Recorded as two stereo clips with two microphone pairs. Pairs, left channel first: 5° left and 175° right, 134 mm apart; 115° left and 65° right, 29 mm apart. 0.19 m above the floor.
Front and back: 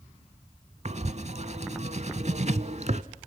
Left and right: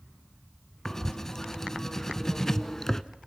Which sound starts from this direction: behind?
Writing, at 0.8 s.